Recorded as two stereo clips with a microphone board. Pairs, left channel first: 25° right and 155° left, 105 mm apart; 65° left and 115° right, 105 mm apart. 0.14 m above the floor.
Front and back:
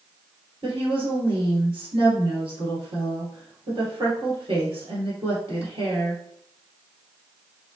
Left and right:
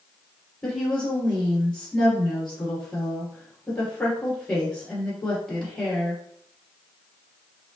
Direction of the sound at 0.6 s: 130° left.